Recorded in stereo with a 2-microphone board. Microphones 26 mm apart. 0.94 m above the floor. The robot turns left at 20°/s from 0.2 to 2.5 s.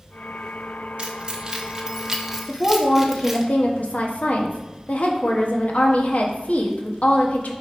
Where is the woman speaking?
65° left (ahead or behind), 1.2 m.